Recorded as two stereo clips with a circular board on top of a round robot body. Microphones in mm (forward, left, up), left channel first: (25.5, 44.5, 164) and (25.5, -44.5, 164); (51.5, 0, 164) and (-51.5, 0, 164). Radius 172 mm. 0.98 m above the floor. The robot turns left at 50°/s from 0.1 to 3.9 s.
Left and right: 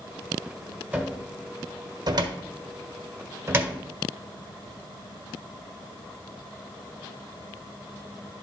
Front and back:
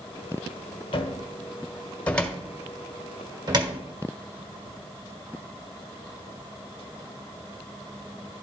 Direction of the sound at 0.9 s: 15° right.